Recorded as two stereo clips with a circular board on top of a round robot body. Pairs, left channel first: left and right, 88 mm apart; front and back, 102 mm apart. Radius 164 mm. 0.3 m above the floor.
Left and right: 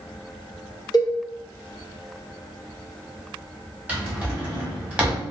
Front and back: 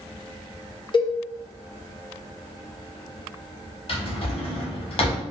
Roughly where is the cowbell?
Ahead left.